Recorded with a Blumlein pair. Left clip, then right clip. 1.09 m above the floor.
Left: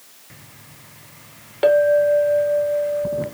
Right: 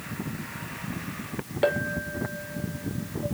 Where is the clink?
10° left, 1.1 m.